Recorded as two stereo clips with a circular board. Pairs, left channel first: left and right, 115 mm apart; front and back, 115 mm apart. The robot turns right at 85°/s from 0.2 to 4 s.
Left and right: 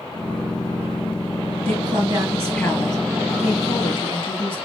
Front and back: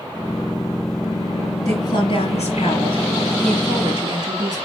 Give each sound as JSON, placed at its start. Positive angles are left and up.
{"t": 1.6, "sound": "a woman speaking", "azimuth_deg": -60, "distance_m": 3.5}